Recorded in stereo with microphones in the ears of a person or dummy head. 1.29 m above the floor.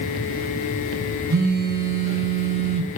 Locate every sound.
1.3 s a phone buzzing: 80° right, 3.5 m